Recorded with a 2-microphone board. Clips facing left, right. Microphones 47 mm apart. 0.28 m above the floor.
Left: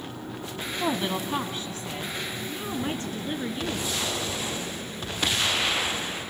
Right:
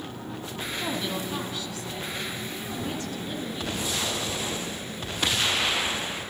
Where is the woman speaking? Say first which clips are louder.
Left 4 dB; 30° left (ahead or behind), 1.8 m; by 4.0 s 35° left (ahead or behind), 4 m.